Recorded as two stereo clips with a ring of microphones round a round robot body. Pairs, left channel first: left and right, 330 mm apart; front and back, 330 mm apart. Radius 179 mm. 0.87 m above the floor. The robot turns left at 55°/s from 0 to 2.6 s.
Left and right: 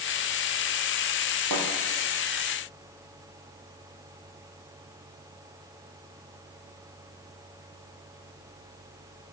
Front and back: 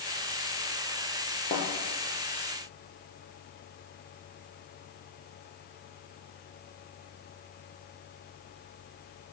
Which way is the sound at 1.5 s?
60° right.